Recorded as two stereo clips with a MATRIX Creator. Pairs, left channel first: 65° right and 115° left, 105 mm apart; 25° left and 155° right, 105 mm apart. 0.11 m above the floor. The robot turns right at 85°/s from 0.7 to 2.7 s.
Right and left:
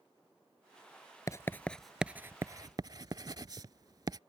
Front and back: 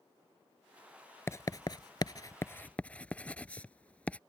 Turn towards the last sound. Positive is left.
turn(degrees=95)